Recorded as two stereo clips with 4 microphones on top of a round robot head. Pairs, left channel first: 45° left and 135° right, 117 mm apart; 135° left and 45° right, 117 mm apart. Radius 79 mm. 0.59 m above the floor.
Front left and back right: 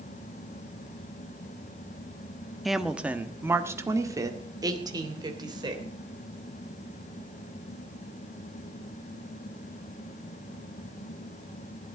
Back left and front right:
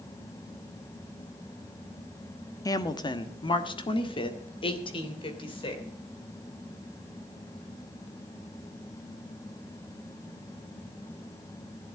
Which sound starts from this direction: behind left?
A woman speaking, at 2.6 s.